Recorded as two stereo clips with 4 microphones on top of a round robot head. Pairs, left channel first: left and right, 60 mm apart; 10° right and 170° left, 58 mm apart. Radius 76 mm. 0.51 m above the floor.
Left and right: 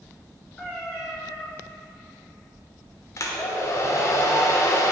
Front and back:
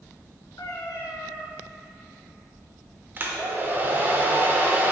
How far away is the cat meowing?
About 3 m.